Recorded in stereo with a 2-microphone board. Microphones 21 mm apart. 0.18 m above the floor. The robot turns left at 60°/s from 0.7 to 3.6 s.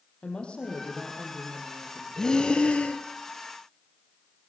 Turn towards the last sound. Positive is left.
turn(degrees=65)